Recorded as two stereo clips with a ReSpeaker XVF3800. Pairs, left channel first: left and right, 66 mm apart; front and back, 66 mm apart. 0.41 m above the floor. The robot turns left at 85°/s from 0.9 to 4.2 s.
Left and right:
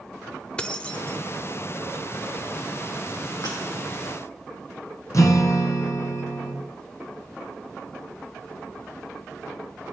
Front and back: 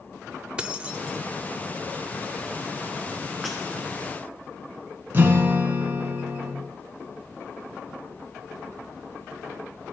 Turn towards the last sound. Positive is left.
turn(degrees=125)